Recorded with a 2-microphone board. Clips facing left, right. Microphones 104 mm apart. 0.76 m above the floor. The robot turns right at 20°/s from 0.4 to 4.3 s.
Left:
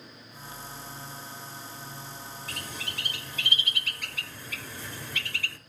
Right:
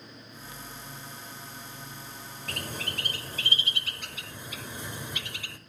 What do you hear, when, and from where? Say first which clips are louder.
2.5 s a bird: right 6 dB; 55° right (ahead or behind), 1.0 m; by 5.6 s 20° right (ahead or behind), 1.0 m